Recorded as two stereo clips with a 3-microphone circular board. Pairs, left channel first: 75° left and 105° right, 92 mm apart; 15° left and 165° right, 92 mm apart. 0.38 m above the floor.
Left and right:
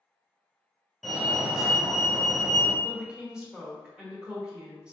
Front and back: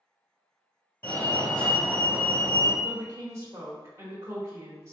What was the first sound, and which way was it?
A fire alarm, 20° right.